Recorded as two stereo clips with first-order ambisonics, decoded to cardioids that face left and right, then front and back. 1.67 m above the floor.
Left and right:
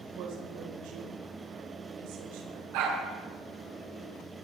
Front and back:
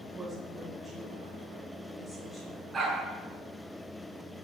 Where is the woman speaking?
105° right, 5.5 m; by 2.6 s 80° right, 5.5 m.